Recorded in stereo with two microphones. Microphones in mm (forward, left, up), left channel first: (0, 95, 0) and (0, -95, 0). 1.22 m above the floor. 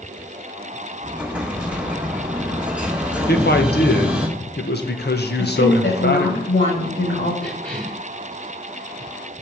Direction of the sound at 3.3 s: 60° left (ahead or behind).